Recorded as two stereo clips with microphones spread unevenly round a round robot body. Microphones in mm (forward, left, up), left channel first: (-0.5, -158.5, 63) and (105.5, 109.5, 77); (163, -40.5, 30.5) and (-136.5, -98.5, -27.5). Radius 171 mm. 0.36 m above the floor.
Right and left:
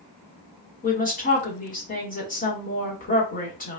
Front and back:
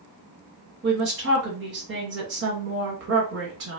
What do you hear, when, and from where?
0.8 s a woman speaking: 160° right, 1.8 m